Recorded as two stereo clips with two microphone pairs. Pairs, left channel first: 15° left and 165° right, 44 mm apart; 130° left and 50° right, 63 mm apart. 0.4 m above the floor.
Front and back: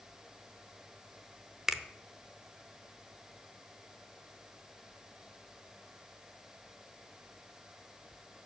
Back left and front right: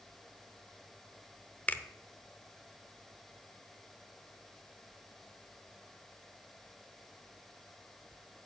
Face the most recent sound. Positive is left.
turn(degrees=130)